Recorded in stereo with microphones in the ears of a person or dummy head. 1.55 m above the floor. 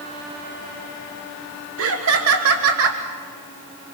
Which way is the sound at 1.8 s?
70° right (ahead or behind).